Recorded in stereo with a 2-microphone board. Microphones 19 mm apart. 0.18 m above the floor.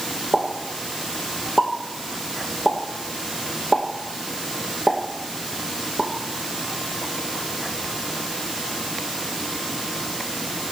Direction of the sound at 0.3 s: 25° right (ahead or behind).